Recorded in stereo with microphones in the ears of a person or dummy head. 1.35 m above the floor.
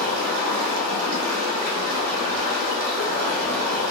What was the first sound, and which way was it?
Running water, 80° right.